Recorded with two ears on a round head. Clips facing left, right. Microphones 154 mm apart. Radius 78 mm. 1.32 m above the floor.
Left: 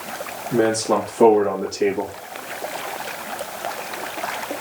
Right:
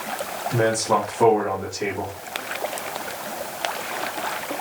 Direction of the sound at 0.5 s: 25° left (ahead or behind).